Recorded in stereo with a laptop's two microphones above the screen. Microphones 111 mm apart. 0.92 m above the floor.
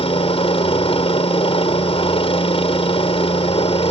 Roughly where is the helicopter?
Left.